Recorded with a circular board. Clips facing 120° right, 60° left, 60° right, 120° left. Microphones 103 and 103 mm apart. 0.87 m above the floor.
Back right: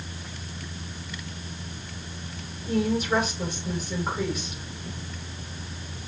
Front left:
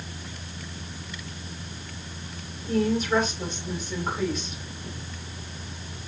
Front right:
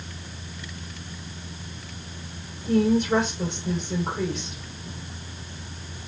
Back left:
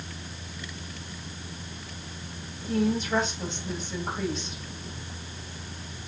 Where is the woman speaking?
35° right, 3 m.